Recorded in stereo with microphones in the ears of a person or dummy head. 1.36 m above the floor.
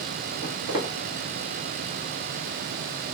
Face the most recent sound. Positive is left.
turn(degrees=-25)  # may be behind; listen again after turning